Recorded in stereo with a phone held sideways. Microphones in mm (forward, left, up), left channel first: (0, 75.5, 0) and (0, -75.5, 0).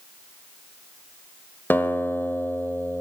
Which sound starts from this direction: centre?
A guitar, at 1.7 s.